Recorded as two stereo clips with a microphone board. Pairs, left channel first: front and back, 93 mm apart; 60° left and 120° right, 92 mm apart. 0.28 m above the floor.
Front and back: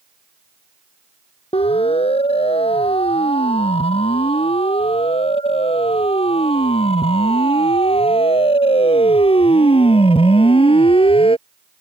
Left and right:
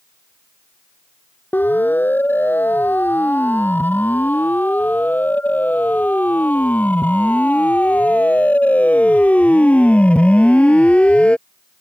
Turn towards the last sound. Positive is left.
turn(degrees=-15)